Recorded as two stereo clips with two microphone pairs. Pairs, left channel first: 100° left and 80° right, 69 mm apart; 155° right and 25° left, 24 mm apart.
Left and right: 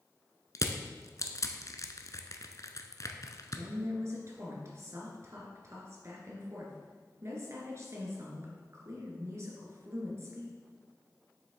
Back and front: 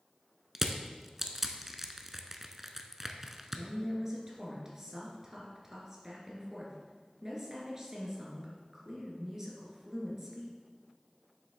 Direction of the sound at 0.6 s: 100° left.